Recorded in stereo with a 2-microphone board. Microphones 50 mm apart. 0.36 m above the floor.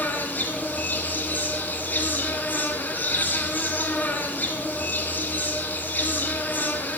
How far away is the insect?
About 2.5 m.